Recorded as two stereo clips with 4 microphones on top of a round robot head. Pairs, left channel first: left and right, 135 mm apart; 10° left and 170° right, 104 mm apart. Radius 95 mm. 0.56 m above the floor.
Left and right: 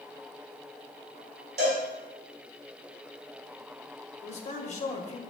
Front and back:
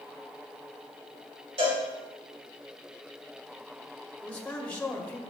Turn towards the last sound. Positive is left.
turn(degrees=90)